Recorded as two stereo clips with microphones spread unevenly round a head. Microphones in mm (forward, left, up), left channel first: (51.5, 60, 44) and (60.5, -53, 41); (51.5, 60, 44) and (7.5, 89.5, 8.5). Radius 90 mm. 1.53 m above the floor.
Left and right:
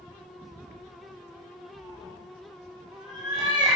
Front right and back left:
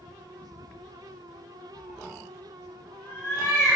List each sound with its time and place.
1.7 s a cat meowing: 80° right, 0.8 m